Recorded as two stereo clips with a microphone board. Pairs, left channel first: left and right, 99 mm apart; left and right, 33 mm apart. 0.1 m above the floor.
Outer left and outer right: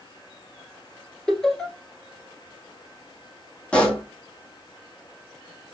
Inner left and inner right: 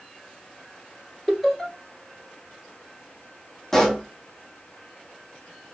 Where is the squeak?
I don't hear a squeak.